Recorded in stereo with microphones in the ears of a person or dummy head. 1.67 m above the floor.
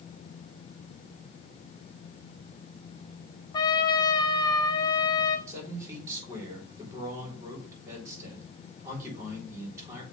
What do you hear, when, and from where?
3.5 s a trumpet: 20° left (ahead or behind), 0.9 m
5.5 s a man speaking: 10° right (ahead or behind), 4 m